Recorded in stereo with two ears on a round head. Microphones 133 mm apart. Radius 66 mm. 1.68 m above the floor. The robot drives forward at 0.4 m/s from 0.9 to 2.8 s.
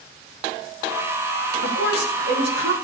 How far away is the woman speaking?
About 4 m.